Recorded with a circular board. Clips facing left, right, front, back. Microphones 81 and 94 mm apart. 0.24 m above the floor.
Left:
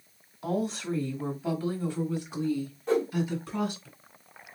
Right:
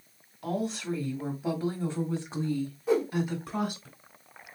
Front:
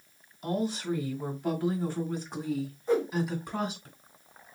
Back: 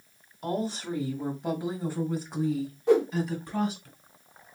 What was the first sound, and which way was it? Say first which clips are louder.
A woman speaking: left 1 dB, even; 175° left.